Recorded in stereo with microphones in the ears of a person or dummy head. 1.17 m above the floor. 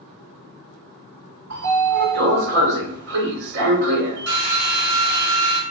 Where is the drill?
75° right (ahead or behind), 1.3 m.